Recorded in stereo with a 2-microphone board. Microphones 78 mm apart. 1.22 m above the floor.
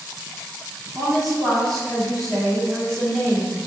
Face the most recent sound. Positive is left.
turn(degrees=0)  # may be behind; listen again after turning